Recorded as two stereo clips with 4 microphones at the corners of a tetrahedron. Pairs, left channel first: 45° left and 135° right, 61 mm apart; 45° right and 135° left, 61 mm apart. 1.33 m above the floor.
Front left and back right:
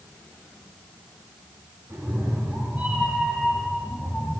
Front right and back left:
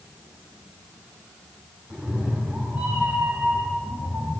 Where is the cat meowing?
150° right, 1.5 m; by 4.3 s 105° left, 1.5 m.